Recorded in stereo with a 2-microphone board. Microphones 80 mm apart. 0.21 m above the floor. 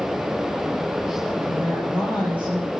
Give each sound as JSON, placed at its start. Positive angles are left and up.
{"t": 1.5, "sound": "a woman speaking", "side_deg": -20, "distance_m": 6.0}